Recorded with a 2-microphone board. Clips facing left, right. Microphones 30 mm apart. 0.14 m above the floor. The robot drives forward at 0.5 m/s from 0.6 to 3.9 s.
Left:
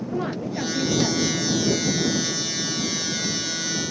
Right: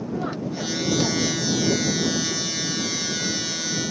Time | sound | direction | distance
0.1 | a woman speaking | 45° left (ahead or behind) | 3 m